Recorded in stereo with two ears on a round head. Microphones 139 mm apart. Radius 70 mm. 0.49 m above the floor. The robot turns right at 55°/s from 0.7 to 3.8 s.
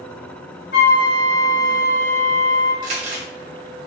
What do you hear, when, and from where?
0.7 s a flute: 90° left, 1.5 m; by 2.7 s 160° right, 1.5 m
2.8 s crumpling: 70° right (ahead or behind), 2 m; by 3.3 s 60° right (ahead or behind), 2 m